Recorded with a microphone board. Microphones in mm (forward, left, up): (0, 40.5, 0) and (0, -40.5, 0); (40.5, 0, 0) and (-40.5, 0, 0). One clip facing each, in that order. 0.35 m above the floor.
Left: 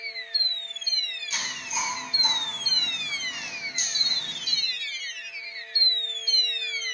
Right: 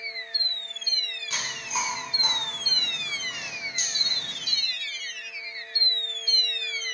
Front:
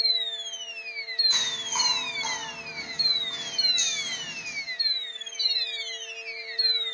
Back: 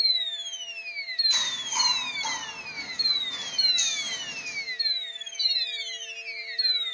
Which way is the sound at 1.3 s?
60° right.